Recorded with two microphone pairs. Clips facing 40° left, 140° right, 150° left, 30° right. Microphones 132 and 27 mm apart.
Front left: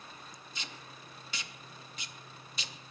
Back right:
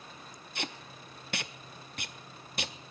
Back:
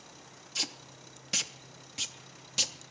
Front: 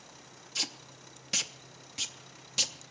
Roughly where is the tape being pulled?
Behind right.